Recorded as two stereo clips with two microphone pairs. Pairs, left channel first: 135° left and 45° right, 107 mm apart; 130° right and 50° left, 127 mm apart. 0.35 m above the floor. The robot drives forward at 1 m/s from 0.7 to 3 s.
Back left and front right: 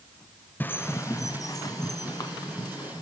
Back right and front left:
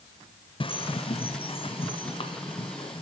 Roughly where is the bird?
Behind.